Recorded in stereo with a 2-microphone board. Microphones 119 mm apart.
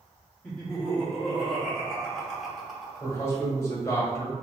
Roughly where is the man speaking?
Left.